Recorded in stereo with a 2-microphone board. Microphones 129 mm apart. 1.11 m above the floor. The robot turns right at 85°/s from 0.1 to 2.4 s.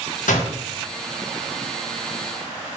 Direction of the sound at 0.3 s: 75° left (ahead or behind).